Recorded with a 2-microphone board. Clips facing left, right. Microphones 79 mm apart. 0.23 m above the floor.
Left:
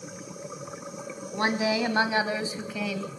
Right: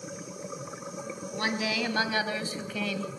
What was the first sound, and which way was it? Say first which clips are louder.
A woman speaking: left 5 dB; 30° left (ahead or behind).